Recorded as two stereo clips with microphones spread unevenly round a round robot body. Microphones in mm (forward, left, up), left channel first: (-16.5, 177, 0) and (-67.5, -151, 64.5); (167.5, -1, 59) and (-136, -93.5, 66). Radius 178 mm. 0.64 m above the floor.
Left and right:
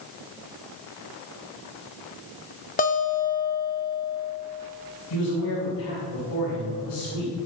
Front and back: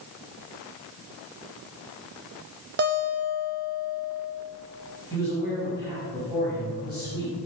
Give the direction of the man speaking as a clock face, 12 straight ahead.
8 o'clock.